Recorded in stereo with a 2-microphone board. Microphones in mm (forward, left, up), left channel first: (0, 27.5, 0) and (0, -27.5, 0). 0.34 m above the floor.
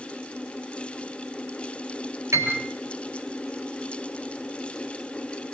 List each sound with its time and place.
2.3 s a piano: 70° right (ahead or behind), 6.5 m